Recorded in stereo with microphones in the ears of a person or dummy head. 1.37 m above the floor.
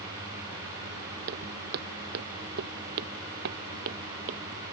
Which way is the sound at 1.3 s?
60° right (ahead or behind).